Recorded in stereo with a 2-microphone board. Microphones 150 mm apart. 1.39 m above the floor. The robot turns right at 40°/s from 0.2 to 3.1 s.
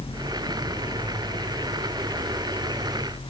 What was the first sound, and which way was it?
Only background noise.